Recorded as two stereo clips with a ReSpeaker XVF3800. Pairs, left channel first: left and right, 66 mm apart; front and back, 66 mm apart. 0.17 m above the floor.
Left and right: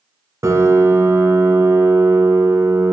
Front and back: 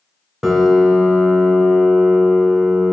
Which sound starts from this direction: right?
A piano, at 0.4 s.